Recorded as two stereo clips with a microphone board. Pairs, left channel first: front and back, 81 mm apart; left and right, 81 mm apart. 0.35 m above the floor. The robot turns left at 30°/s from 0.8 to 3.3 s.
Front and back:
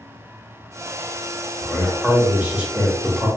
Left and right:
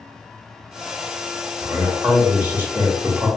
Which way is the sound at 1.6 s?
100° right.